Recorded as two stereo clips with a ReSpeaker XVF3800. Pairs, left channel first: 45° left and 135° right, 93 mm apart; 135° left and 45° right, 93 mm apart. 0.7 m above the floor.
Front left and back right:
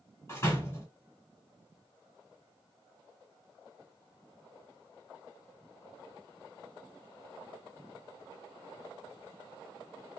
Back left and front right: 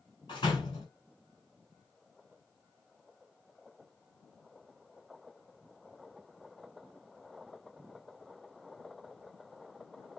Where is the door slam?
105° left, 1.6 m.